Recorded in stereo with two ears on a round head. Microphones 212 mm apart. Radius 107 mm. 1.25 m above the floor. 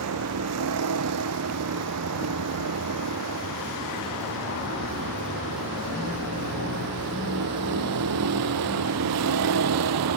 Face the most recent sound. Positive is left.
turn(degrees=-80)